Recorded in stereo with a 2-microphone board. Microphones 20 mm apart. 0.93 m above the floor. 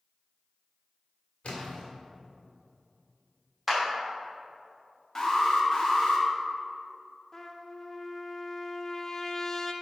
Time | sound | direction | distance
1.4 | a splash | 60° left (ahead or behind) | 1.9 m
3.7 | a clap | 5° right (ahead or behind) | 2.5 m
5.2 | an alarm | 30° left (ahead or behind) | 1.5 m
7.3 | a trumpet | 20° left (ahead or behind) | 0.5 m